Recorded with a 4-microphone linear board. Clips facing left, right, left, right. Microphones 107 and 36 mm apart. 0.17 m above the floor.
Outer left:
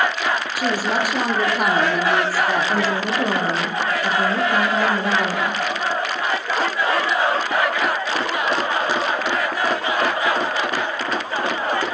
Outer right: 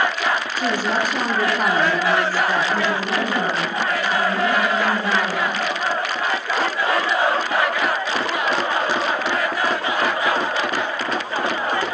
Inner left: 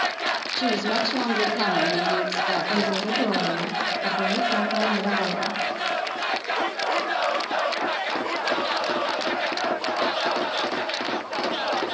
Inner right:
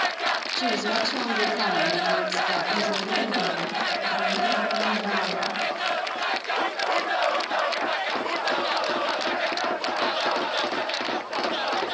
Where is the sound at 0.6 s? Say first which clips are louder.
Even, inner left 4 dB; 10° left (ahead or behind), 4.5 m.